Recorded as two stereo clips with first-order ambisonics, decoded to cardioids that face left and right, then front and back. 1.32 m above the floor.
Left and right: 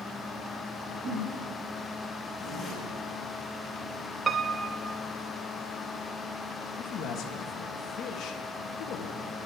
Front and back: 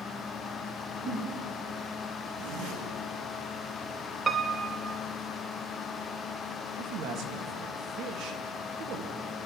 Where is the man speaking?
145° left, 2.5 m.